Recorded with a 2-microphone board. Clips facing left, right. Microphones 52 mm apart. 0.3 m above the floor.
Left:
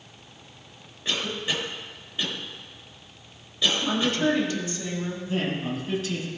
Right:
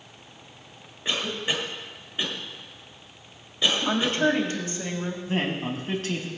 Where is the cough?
20° right (ahead or behind), 1.5 m.